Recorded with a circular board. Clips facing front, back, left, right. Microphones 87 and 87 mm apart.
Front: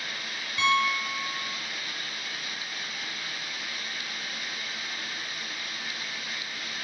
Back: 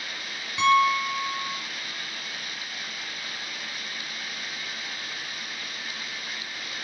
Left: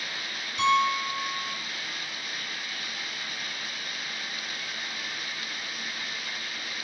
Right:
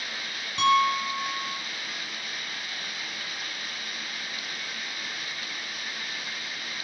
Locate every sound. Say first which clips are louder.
0.6 s a piano: back 5 dB, right 2 dB; 110° right, 4.5 m